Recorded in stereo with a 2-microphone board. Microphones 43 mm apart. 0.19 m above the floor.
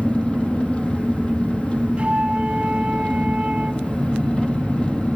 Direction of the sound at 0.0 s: 25° left (ahead or behind).